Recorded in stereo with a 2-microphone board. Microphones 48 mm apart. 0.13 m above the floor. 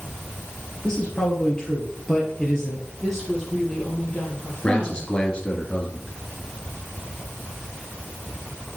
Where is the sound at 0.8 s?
10° left (ahead or behind), 2.5 m.